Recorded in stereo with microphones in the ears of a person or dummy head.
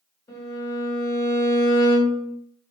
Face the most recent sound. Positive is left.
turn(degrees=25)  # may be behind; listen again after turning